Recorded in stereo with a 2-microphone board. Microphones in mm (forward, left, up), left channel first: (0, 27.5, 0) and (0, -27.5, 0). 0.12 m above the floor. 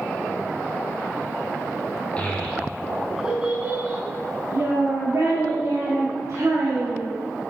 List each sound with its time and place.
2.2 s a child speaking: 20° left (ahead or behind), 1.3 m; by 7.1 s 55° right (ahead or behind), 3 m